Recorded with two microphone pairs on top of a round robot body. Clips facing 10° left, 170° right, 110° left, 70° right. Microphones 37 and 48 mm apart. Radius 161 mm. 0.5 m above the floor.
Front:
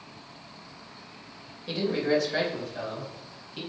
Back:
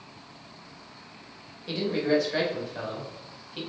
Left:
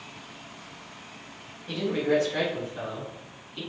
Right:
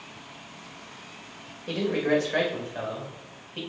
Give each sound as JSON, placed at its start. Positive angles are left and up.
{"t": 1.7, "sound": "a man speaking", "azimuth_deg": -80, "distance_m": 3.0}